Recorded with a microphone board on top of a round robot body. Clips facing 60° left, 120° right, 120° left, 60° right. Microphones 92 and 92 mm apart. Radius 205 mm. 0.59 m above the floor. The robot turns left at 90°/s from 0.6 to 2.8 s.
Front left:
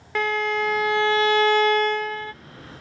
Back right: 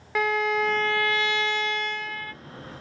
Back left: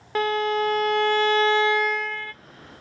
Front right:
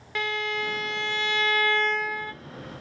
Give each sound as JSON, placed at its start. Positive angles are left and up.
{"t": 0.1, "sound": "a violin", "azimuth_deg": 155, "distance_m": 0.6}